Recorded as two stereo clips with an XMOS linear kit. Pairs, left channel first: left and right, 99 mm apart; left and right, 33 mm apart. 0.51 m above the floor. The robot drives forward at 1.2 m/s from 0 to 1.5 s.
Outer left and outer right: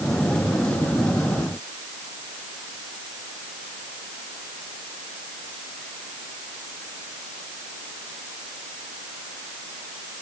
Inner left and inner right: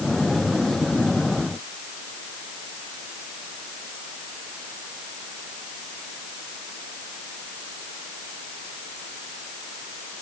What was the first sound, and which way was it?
Only background noise.